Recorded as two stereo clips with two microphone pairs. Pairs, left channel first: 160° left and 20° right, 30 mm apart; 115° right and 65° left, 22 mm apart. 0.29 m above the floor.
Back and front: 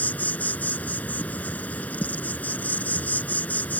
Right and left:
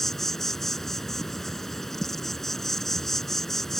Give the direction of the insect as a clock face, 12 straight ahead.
6 o'clock.